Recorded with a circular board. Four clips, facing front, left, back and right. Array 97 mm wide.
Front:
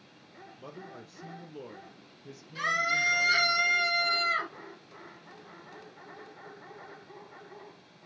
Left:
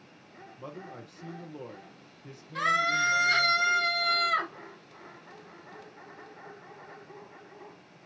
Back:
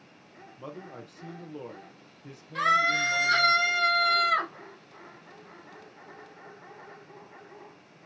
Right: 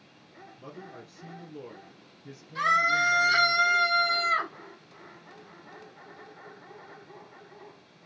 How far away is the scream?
About 4.5 m.